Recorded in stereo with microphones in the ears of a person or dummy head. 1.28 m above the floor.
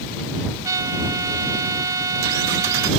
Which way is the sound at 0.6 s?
20° right (ahead or behind).